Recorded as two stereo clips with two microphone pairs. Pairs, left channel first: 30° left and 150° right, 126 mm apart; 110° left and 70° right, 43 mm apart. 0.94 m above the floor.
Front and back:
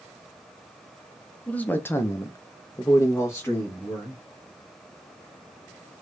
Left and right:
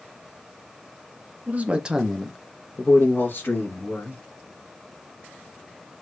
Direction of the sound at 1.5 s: 40° right.